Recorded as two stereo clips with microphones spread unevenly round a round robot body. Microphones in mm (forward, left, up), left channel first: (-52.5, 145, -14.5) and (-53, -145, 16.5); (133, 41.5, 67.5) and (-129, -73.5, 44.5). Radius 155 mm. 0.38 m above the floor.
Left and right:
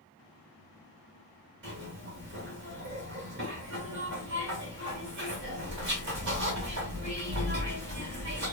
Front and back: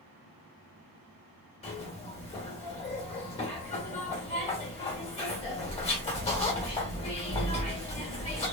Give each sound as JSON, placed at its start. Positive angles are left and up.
{"t": 1.6, "sound": "a zipper", "azimuth_deg": -45, "distance_m": 1.4}